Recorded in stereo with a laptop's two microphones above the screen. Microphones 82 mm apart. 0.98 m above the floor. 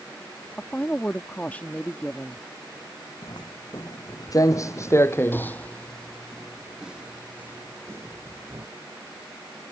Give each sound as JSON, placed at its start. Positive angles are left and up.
{"t": 0.6, "sound": "a woman speaking", "side_deg": 20}
{"t": 3.2, "sound": "footsteps", "side_deg": 60}